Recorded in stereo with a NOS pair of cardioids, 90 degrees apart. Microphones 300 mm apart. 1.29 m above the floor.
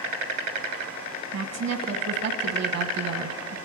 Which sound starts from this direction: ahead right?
A woman speaking, at 1.3 s.